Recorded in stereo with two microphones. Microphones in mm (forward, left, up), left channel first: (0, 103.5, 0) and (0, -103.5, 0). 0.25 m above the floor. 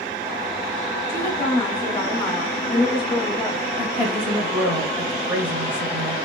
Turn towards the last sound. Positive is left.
turn(degrees=-10)  # may be behind; listen again after turning